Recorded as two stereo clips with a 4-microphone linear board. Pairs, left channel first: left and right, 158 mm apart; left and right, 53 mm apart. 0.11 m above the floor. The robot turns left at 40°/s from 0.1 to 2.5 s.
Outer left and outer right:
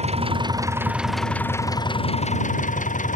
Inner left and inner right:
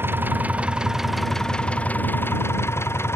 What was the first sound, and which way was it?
An engine running, 140° right.